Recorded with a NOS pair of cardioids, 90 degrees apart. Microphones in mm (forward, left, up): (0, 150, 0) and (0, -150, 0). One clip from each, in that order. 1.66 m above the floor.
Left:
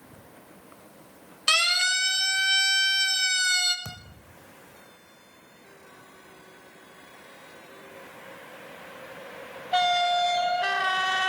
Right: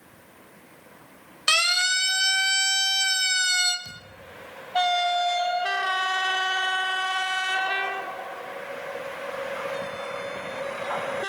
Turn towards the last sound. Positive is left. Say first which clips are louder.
# right 2 dB
turn(degrees=65)